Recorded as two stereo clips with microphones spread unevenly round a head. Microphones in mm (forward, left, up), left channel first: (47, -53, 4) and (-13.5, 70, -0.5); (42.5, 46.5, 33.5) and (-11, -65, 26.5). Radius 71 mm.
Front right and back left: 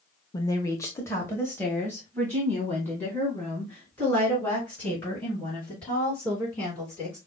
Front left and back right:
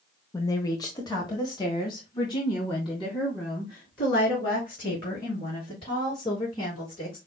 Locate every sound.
0.3 s a woman speaking: straight ahead, 0.8 m; by 7.2 s 15° left, 5 m